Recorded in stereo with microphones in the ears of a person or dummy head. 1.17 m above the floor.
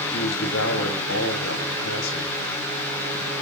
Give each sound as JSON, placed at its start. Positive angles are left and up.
{"t": 0.1, "sound": "a man speaking", "side_deg": 85, "distance_m": 6.0}